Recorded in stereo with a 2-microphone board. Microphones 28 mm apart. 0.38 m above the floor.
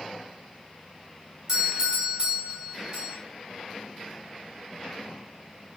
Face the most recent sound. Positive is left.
turn(degrees=-15)  # may be behind; listen again after turning